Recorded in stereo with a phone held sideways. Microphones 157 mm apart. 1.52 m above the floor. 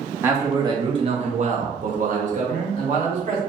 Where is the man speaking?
15° right (ahead or behind), 0.9 m; by 3.4 s 45° right (ahead or behind), 1.2 m.